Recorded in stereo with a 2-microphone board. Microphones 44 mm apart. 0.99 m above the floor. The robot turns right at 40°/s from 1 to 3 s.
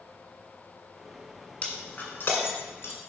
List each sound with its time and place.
1.6 s breaking glass: 30° left (ahead or behind), 1.8 m; by 3.0 s 65° left (ahead or behind), 1.8 m